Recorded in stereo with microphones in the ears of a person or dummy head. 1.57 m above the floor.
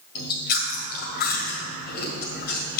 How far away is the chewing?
About 1.6 m.